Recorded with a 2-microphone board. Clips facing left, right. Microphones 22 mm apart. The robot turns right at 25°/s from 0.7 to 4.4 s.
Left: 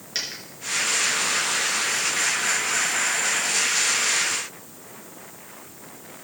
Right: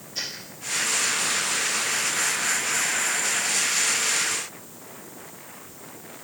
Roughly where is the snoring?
I don't hear snoring.